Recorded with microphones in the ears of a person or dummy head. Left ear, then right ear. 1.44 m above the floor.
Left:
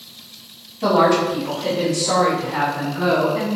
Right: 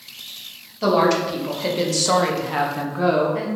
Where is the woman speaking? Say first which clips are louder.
Left 2 dB; 50° right (ahead or behind), 1.2 m; by 3.5 s 25° right (ahead or behind), 0.7 m.